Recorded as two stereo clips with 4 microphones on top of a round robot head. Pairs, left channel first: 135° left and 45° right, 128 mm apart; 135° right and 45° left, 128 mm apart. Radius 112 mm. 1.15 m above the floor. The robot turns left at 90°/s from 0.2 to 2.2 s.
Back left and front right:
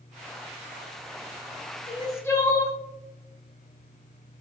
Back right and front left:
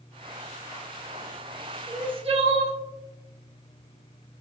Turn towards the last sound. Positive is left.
turn(degrees=70)